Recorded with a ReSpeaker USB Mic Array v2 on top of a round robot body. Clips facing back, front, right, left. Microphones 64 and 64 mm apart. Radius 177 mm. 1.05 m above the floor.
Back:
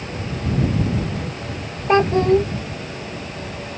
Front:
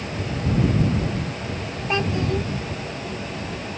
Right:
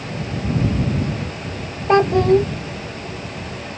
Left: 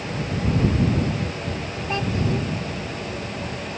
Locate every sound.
1.9 s a child speaking: 125° right